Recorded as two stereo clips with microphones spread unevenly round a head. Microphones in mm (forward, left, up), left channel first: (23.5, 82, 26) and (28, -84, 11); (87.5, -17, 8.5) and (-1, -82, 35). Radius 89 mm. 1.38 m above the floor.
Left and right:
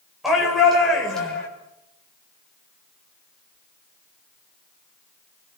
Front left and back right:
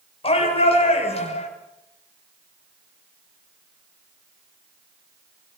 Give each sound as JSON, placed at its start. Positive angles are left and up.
{"t": 0.2, "sound": "a shout", "azimuth_deg": 0, "distance_m": 7.0}